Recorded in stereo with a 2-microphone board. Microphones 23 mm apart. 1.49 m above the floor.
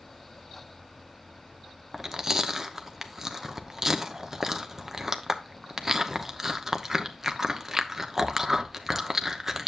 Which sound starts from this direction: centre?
Chewing, at 1.9 s.